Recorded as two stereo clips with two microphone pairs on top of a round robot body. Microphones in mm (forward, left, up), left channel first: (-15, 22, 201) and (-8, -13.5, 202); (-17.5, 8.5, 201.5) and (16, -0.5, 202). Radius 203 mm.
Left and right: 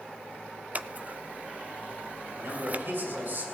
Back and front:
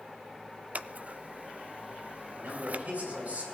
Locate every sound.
0.8 s scissors: 45° right, 0.7 m
2.3 s a man speaking: 55° right, 6.5 m